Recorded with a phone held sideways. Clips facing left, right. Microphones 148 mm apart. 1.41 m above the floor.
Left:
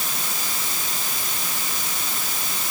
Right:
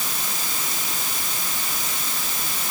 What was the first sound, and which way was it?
Only background noise.